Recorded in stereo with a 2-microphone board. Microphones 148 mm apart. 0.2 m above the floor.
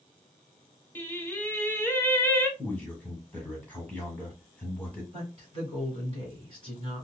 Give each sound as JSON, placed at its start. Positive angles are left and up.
{"t": 0.9, "sound": "singing", "side_deg": 15, "distance_m": 0.7}
{"t": 2.6, "sound": "a man speaking", "side_deg": 10, "distance_m": 1.2}
{"t": 5.1, "sound": "a woman speaking", "side_deg": -35, "distance_m": 1.9}